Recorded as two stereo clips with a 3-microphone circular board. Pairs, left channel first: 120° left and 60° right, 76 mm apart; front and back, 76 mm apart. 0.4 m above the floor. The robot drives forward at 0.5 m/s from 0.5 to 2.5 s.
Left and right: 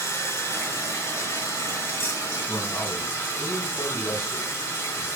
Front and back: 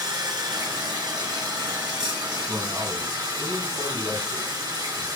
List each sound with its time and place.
0.0 s running water: 170° left, 1.8 m; by 5.2 s 175° left, 2.5 m
2.5 s a man speaking: 160° left, 4 m